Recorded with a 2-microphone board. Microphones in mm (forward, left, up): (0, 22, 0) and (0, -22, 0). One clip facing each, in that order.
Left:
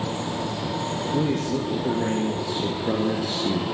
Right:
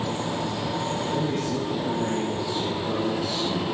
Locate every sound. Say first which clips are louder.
1.1 s a man speaking: left 5 dB; 70° left (ahead or behind), 5.5 m; by 3.6 s 55° left (ahead or behind), 3 m